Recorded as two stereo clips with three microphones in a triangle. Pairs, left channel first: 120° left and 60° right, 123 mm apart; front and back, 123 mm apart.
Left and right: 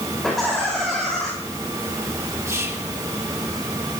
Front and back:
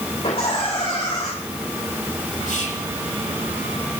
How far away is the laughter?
About 4 m.